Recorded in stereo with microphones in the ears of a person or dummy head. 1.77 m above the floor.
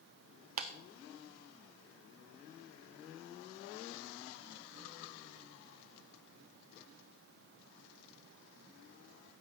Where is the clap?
45° right (ahead or behind), 0.7 m.